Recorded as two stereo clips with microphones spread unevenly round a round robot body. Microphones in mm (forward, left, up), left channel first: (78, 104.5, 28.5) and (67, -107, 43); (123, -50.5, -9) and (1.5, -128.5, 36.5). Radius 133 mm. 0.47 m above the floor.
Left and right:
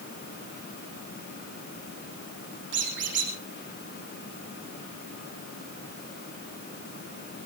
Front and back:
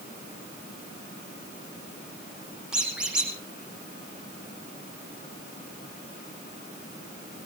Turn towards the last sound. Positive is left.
turn(degrees=-65)